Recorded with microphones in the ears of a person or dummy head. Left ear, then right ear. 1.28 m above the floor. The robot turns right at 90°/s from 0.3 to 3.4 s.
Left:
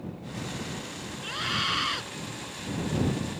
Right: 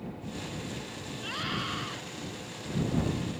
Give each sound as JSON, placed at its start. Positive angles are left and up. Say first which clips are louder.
{"t": 1.2, "sound": "a scream", "louder": "left 5 dB", "azimuth_deg": -10}